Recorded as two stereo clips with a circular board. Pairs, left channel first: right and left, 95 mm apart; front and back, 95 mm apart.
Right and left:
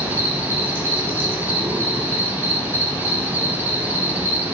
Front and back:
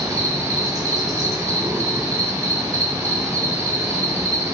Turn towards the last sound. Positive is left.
turn(degrees=150)